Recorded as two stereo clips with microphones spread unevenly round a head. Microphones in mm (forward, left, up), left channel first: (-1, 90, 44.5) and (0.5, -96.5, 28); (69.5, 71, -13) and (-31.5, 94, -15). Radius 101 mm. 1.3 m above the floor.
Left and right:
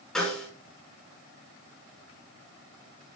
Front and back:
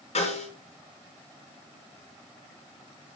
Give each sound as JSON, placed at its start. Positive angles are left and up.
{"t": 0.1, "sound": "a snare drum", "azimuth_deg": 5, "distance_m": 5.0}